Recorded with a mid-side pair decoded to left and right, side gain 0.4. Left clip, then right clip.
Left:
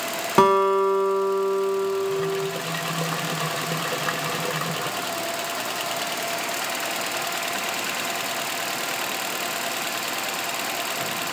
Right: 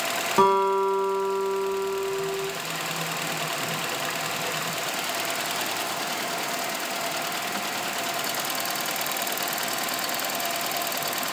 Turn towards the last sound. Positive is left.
turn(degrees=50)